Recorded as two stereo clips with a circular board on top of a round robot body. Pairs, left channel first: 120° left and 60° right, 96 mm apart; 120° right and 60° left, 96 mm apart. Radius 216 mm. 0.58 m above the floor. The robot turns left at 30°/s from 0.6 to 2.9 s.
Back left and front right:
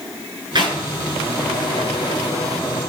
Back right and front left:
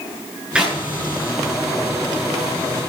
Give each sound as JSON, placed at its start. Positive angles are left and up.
{"t": 0.6, "sound": "a clap", "azimuth_deg": -20, "distance_m": 8.0}